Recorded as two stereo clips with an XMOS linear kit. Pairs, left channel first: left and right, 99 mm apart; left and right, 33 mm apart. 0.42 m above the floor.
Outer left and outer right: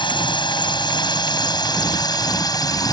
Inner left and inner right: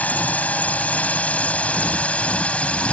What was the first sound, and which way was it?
A drone, 55° left (ahead or behind).